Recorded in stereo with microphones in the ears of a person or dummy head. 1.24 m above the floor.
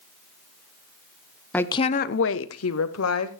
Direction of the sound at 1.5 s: 5° left (ahead or behind).